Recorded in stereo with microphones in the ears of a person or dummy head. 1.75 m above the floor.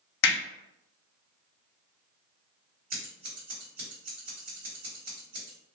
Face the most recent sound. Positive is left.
turn(degrees=-55)  # may be behind; listen again after turning